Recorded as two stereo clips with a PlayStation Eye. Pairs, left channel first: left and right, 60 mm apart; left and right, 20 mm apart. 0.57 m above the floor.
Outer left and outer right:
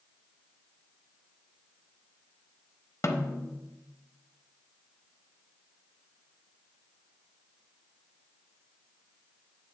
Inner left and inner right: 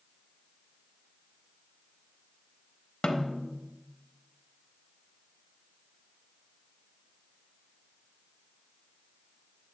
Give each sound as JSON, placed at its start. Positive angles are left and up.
{"t": 3.0, "sound": "a snare drum", "side_deg": 55, "distance_m": 0.9}